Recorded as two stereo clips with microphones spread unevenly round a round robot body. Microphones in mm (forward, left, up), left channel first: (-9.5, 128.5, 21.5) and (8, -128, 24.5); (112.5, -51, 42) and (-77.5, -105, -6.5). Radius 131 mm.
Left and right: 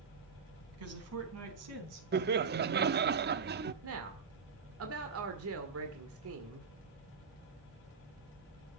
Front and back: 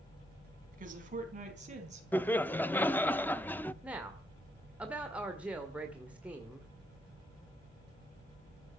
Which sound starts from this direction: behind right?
A woman speaking, at 0.7 s.